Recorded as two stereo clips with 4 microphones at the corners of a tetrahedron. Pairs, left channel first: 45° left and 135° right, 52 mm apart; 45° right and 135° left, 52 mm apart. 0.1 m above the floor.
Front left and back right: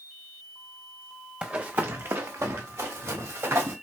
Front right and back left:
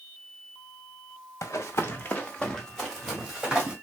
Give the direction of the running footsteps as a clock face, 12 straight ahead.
2 o'clock.